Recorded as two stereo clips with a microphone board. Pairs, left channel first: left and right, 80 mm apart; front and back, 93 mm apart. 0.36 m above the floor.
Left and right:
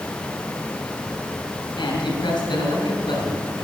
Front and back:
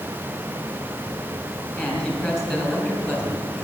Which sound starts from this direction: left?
A man speaking, at 1.8 s.